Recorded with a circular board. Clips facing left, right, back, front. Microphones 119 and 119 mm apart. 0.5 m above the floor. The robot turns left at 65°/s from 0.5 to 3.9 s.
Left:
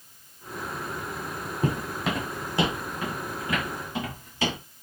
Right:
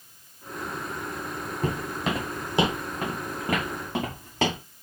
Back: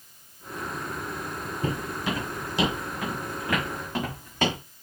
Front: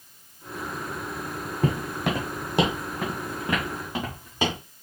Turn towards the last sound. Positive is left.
turn(degrees=-75)